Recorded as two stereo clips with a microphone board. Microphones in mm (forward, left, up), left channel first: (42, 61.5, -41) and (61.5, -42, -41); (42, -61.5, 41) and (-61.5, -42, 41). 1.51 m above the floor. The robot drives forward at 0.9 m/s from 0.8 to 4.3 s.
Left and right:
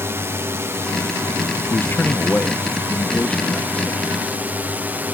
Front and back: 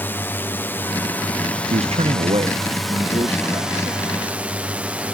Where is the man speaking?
165° left; by 5.0 s 175° left.